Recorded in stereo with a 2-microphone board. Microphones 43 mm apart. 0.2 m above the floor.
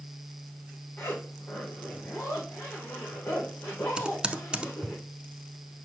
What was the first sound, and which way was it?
A zipper, 85° left.